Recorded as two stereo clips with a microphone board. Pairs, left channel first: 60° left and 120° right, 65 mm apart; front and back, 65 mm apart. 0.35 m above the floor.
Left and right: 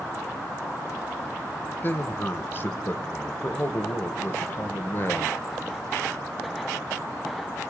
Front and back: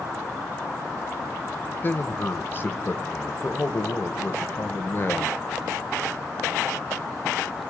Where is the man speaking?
30° left, 1.4 m.